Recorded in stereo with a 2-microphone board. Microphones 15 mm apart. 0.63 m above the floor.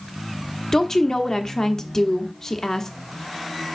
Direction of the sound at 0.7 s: 30° left (ahead or behind).